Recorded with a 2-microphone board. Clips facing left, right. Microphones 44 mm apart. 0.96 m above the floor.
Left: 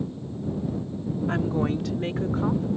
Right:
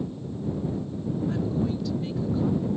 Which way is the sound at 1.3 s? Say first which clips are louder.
Left 4 dB; 55° left (ahead or behind).